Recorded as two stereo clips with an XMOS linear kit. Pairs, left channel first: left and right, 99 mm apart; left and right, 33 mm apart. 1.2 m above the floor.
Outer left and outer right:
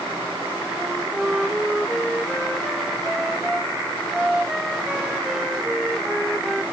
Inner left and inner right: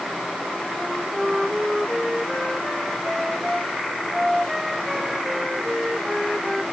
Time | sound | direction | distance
0.8 | a flute | 5° right (ahead or behind) | ?